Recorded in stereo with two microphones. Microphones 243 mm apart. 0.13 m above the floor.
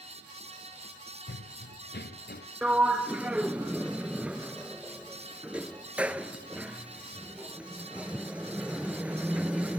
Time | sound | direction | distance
1.3 | running footsteps | 50° left (ahead or behind) | 0.6 m
2.6 | a sliding door | 5° right (ahead or behind) | 0.8 m